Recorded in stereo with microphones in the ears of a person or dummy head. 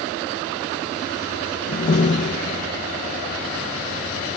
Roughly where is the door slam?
Left.